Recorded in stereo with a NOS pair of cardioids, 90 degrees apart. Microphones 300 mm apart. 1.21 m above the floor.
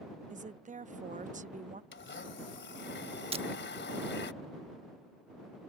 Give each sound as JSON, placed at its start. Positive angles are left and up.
{"t": 0.3, "sound": "a woman speaking", "azimuth_deg": -25}
{"t": 1.9, "sound": "a blender", "azimuth_deg": 40}
{"t": 3.3, "sound": "breaking glass", "azimuth_deg": -20}